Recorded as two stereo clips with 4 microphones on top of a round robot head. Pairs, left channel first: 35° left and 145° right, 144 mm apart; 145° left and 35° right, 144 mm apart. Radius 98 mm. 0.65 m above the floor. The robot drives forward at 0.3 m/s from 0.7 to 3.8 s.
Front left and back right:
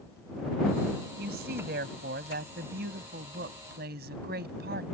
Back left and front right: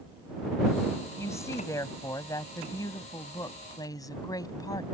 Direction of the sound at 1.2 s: 145° right.